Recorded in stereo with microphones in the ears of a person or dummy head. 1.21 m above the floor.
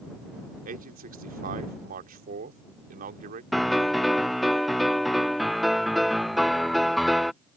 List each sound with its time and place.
0.7 s a man speaking: 50° right (ahead or behind)
3.5 s a piano: centre (ahead or behind)